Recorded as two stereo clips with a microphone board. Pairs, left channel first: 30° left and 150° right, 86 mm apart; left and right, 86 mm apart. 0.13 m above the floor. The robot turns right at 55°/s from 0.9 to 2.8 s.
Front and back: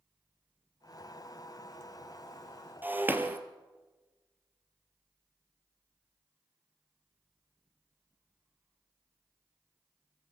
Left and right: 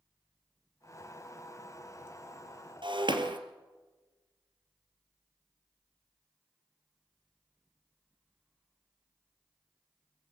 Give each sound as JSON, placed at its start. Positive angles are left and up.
{"t": 2.8, "sound": "breaking glass", "azimuth_deg": -85, "distance_m": 1.6}